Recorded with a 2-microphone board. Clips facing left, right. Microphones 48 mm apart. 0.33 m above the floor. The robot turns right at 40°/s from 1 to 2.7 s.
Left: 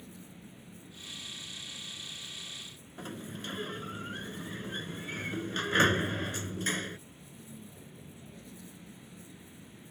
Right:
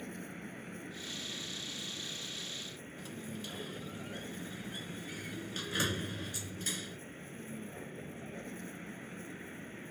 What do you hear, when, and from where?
0.0 s a vehicle: 120° right; by 9.9 s 55° right
3.0 s a sliding door: 45° left (ahead or behind)